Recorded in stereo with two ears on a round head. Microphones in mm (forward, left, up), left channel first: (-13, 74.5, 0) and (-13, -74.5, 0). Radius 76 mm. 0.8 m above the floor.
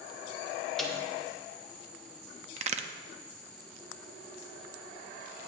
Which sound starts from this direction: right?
A crack, at 2.6 s.